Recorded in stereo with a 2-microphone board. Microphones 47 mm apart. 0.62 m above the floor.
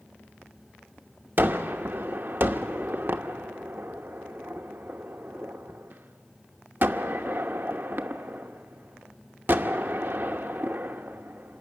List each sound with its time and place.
1.4 s a gunshot: 45° right (ahead or behind), 1.0 m